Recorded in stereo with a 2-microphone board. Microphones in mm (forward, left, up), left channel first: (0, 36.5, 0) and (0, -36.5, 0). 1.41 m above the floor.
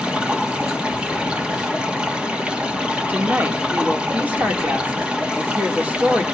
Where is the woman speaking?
20° right (ahead or behind), 2.5 m.